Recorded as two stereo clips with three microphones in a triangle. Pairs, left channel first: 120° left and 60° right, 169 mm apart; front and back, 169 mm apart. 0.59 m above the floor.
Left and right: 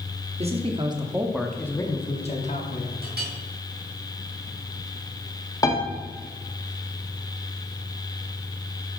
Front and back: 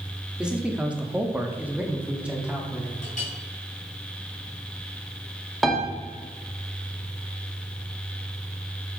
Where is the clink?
45° right, 2.5 m.